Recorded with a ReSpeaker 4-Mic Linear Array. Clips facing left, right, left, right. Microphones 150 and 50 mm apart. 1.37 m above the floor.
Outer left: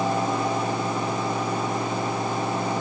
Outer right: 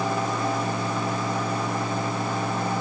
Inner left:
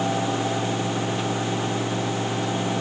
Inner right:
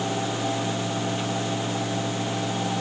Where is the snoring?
No snoring in this recording.